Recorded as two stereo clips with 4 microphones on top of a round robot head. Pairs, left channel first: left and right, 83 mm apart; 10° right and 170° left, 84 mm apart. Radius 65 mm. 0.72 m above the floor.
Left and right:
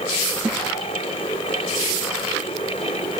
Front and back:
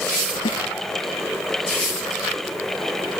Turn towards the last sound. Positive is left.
turn(degrees=-5)